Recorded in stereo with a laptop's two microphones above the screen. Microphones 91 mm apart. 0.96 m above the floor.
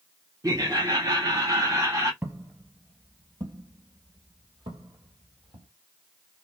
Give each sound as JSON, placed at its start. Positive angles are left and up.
{"t": 0.4, "sound": "laughter", "side_deg": -40, "distance_m": 1.0}
{"t": 2.2, "sound": "footsteps", "side_deg": -25, "distance_m": 1.3}